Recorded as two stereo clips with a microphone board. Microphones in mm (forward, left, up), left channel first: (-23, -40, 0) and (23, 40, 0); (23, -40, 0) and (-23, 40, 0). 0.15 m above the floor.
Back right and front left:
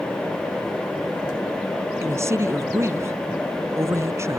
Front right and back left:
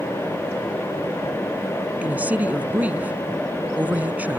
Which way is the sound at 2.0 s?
60° left.